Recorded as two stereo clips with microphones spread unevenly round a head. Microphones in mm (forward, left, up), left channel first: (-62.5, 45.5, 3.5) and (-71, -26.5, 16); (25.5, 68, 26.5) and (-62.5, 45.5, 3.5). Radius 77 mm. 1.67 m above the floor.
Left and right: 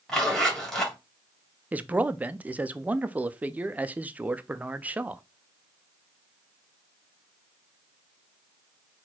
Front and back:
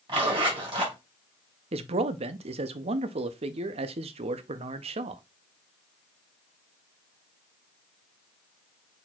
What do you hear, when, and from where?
0.1 s a zipper: 175° left, 2.0 m
1.7 s a man speaking: 170° right, 0.6 m